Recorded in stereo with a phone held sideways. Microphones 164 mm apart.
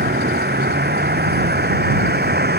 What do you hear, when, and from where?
0.0 s a vehicle: 85° right